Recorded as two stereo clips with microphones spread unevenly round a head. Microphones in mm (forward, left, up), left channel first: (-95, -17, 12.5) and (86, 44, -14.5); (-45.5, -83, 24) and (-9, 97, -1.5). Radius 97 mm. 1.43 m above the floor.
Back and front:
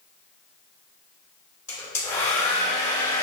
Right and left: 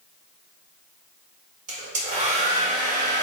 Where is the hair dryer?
125° left, 2.5 m.